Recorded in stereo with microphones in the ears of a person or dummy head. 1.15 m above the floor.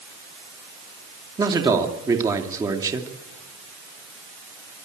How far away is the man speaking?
About 2.5 m.